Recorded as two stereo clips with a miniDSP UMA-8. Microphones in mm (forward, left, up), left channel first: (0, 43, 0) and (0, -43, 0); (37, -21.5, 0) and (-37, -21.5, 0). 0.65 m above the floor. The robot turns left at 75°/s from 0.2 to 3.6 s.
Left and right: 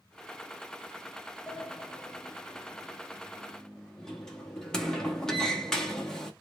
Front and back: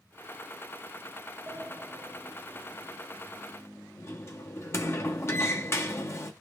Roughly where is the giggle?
No giggle in this recording.